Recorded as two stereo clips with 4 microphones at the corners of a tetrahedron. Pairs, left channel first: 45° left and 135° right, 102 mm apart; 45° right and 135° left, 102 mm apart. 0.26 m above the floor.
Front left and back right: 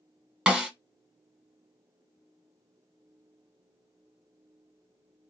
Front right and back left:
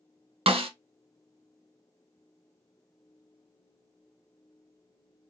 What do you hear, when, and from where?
0.5 s a snare drum: 140° left, 0.9 m